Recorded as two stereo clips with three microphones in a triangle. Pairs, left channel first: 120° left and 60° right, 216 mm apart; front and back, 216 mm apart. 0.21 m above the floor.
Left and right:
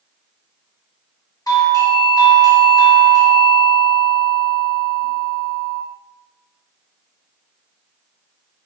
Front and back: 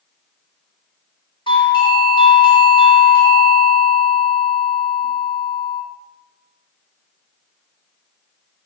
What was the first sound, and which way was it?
A doorbell, 55° left.